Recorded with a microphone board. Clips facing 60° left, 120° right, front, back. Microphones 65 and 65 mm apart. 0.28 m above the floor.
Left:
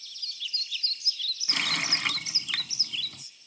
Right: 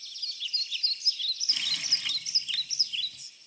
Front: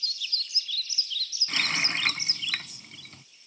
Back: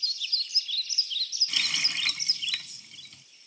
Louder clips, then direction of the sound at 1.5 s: Left 10 dB, front 4 dB; 45° left.